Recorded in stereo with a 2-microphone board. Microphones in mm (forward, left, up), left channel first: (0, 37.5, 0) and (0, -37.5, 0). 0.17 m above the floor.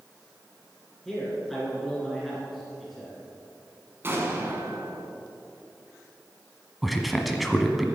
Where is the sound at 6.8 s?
Centre (ahead or behind), 1.0 m.